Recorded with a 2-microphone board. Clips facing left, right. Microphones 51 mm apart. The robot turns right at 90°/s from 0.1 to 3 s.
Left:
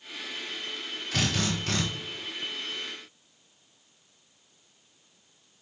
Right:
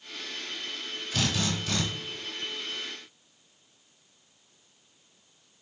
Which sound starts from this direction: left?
A drill, at 1.1 s.